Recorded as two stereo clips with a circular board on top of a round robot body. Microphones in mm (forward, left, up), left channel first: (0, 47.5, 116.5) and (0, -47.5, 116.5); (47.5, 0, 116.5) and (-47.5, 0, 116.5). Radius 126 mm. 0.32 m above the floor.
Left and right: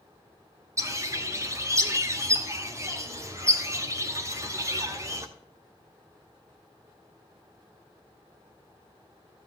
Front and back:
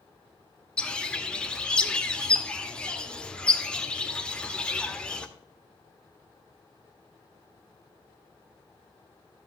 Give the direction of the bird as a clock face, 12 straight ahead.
2 o'clock.